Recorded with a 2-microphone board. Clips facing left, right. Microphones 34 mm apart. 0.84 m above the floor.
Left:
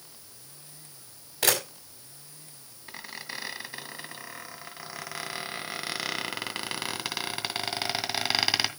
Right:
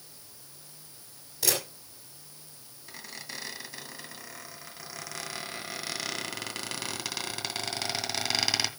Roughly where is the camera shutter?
Left.